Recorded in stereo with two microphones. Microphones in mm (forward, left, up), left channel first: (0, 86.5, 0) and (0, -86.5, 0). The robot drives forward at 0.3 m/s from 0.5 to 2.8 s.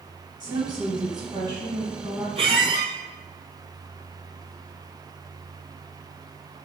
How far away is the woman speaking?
About 1.3 m.